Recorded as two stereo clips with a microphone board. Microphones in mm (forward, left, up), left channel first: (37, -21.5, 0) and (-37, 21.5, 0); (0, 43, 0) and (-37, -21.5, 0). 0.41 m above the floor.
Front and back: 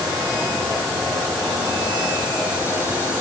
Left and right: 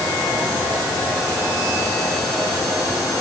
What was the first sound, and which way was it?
Only background noise.